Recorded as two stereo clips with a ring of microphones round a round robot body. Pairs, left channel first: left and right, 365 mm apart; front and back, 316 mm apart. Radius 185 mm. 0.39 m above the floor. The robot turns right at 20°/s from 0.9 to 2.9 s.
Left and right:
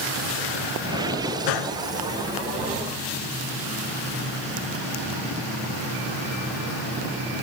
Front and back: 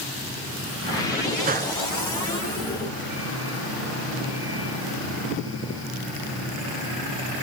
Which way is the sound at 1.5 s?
115° left.